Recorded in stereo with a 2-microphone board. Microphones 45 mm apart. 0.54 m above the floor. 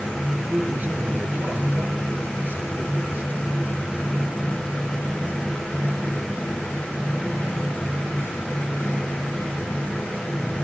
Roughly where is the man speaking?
Right.